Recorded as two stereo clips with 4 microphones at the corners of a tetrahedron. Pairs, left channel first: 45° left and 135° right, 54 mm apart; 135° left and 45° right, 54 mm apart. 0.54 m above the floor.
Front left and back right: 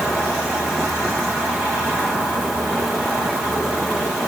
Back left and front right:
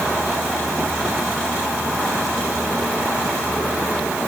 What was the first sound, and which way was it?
Only background noise.